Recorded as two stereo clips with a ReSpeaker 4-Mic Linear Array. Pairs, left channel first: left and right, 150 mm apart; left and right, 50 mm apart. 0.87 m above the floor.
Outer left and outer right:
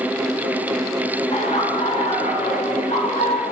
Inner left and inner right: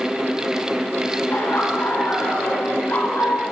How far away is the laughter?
About 4 m.